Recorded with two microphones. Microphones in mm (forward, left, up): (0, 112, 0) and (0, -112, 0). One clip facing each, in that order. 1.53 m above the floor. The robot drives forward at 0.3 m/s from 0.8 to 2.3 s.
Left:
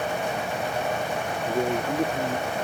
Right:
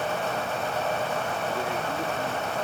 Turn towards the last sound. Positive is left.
turn(degrees=45)  # may be behind; listen again after turning